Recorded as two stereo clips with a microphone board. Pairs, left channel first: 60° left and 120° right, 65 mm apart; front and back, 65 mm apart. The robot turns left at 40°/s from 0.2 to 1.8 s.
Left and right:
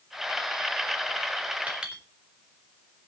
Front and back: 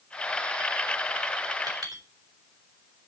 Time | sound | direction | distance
1.7 | a clink | 170° left | 4 m